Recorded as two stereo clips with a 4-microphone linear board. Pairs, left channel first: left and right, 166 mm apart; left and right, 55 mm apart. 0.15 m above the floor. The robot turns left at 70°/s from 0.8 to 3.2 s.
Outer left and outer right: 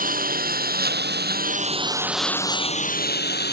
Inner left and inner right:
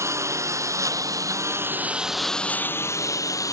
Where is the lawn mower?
55° right (ahead or behind); by 3.5 s 80° left.